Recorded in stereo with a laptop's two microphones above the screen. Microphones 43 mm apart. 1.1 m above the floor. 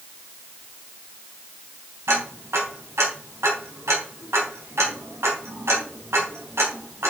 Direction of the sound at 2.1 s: 80° right.